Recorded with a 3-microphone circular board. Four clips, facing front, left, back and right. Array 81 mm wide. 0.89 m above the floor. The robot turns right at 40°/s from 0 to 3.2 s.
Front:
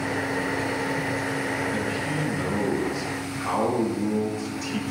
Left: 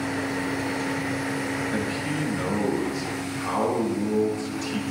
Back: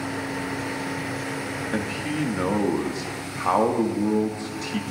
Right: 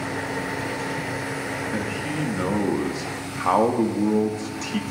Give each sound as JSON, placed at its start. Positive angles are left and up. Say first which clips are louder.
{"t": 1.7, "sound": "a man speaking", "louder": "even, even", "azimuth_deg": 175, "distance_m": 1.8}